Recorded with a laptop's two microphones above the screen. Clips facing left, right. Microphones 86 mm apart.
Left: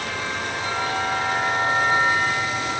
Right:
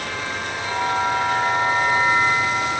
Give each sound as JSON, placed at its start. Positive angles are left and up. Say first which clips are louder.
{"t": 0.6, "sound": "a bell", "louder": "right 5 dB", "side_deg": 0, "distance_m": 4.5}